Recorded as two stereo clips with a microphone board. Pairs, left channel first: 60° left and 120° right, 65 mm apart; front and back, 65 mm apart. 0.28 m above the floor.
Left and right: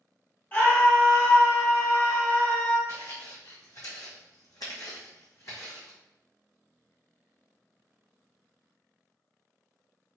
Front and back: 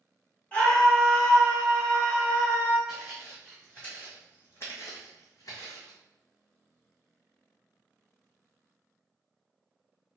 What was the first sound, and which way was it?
A scream, 45° left.